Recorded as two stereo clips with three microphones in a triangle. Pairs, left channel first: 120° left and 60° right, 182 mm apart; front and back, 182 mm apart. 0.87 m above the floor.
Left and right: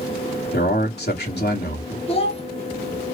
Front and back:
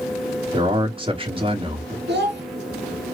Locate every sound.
0.5 s a man speaking: 125° left, 2 m
2.1 s a child speaking: 175° left, 1.2 m